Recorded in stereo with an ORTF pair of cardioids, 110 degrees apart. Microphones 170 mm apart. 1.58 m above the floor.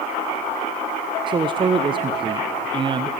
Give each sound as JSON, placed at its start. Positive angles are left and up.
{"t": 1.3, "sound": "a man speaking", "azimuth_deg": -30, "distance_m": 1.0}